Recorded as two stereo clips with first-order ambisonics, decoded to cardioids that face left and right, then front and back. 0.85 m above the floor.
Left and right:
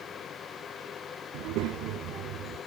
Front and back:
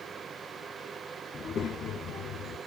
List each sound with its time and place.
1.3 s a child speaking: 65° right, 0.7 m; by 2.6 s 45° right, 1.2 m